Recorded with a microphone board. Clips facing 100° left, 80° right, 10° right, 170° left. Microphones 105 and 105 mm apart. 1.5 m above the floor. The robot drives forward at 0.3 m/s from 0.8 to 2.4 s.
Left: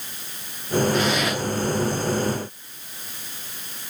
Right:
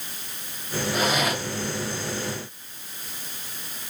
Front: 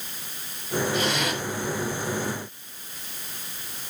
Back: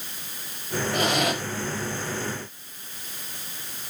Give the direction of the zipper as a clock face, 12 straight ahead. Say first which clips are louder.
Left 2 dB, back 2 dB; 5 o'clock.